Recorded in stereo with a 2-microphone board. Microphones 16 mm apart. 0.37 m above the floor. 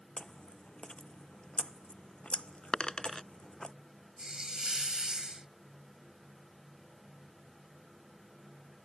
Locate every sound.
0.2 s chewing: 85° left
2.7 s a dropped coin: 75° left (ahead or behind)
4.2 s a hiss: 55° right (ahead or behind)